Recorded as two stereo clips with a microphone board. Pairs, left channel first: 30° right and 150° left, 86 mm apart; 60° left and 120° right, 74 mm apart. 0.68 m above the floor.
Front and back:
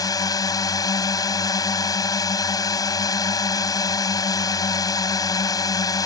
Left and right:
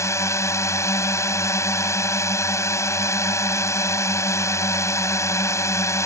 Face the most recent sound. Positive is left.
turn(degrees=10)